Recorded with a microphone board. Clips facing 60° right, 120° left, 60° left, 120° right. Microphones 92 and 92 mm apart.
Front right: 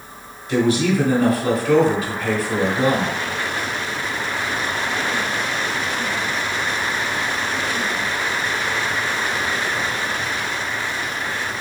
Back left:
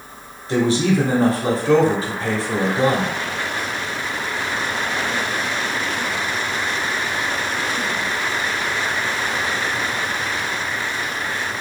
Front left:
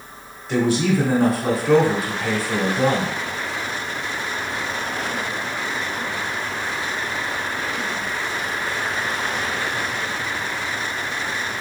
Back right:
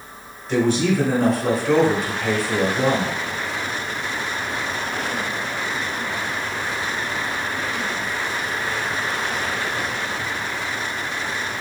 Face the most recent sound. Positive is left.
turn(degrees=145)